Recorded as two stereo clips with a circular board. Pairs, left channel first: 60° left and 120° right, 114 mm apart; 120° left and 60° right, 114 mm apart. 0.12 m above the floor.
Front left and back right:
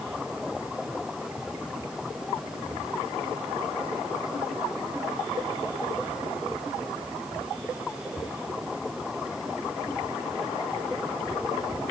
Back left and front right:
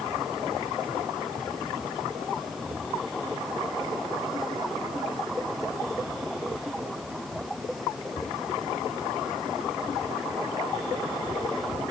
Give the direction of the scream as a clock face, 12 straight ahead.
No scream in this recording.